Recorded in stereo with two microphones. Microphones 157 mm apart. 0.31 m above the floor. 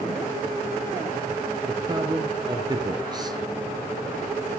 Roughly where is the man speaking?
Right.